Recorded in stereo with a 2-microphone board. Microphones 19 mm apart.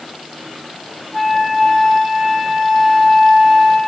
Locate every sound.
1.1 s a flute: 15° left (ahead or behind), 3 m